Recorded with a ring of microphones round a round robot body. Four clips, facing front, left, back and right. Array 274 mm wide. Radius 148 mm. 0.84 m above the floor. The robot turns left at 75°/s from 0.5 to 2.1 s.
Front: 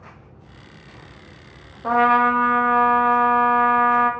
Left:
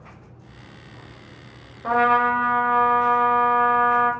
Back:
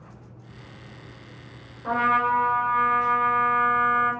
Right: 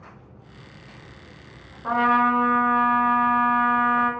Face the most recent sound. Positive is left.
turn(degrees=5)